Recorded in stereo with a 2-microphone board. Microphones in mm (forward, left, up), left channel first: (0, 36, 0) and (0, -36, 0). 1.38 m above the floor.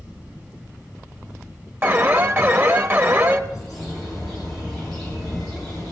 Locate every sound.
1.8 s an alarm: 35° right (ahead or behind), 1.0 m
3.5 s a bird: 5° left (ahead or behind), 8.5 m